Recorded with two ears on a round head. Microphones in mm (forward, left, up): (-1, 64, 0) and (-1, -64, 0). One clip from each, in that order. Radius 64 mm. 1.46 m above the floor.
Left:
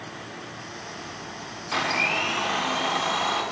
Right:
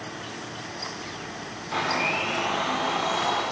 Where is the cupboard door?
No cupboard door in this recording.